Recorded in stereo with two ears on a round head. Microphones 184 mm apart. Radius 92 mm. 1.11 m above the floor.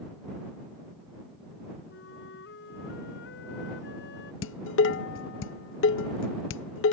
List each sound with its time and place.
1.9 s a flute: 60° left (ahead or behind)
4.4 s dishes clattering: 65° left (ahead or behind)